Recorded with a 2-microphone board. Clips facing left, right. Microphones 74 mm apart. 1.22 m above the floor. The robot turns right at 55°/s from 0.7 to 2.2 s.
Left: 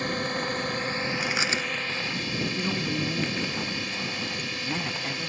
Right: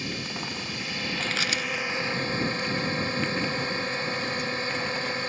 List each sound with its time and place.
0.0 s a drone: 130° left; by 5.3 s 145° right
1.2 s chewing: 10° left (ahead or behind); by 1.7 s 35° left (ahead or behind)
2.5 s a man speaking: 50° left (ahead or behind)